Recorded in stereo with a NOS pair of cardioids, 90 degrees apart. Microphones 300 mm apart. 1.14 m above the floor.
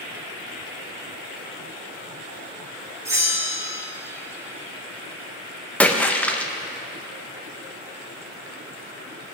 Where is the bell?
10° right, 1.7 m.